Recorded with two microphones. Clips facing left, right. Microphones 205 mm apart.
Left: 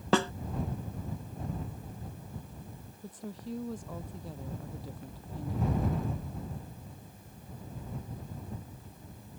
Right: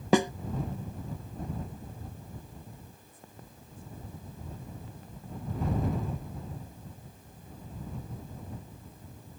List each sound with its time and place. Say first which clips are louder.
0.1 s a snare drum: right 3 dB; 15° right (ahead or behind)
3.0 s a woman speaking: left 12 dB; 75° left (ahead or behind)